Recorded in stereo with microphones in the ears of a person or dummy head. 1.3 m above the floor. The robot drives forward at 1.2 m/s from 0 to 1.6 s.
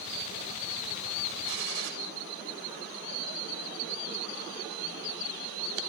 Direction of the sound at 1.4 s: 70° right (ahead or behind).